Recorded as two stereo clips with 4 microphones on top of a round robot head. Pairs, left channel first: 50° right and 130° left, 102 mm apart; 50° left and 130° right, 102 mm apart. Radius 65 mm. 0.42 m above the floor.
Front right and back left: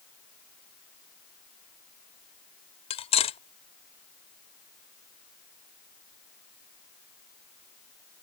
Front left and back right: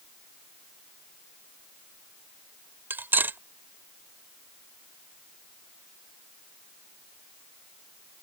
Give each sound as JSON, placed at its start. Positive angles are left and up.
{"t": 2.9, "sound": "cutlery clinking", "azimuth_deg": -60}